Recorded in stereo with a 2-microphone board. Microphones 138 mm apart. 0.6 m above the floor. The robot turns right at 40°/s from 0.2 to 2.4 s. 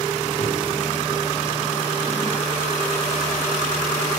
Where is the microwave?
50° left (ahead or behind), 3 m; by 0.5 s 45° left (ahead or behind), 3 m.